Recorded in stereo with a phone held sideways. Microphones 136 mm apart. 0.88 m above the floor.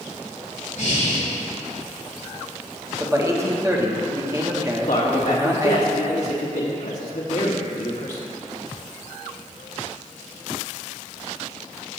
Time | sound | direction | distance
0.8 | breathing | 60° left (ahead or behind) | 2 m
3.0 | a man speaking | 20° right (ahead or behind) | 1.1 m
4.8 | a man speaking | 60° left (ahead or behind) | 1.6 m